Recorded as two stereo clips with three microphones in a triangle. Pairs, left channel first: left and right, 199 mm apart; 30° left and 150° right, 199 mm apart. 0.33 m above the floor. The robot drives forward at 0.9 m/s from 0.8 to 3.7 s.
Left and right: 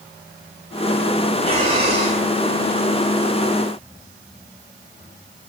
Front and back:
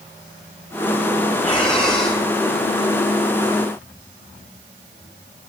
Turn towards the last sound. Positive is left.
turn(degrees=-70)